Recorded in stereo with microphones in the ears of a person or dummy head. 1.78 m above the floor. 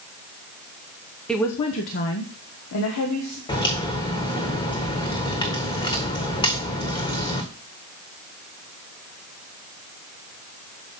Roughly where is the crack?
Left.